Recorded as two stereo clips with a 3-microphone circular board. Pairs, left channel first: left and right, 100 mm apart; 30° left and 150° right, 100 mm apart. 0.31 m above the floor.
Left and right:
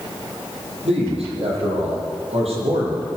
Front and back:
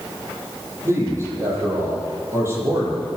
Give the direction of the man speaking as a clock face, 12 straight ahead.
3 o'clock.